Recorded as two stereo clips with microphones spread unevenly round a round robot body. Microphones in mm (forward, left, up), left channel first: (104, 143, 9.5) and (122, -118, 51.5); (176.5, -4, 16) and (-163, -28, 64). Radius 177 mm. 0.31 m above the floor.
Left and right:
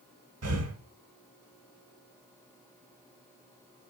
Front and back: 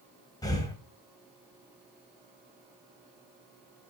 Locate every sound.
0.4 s breathing: 70° right, 1.4 m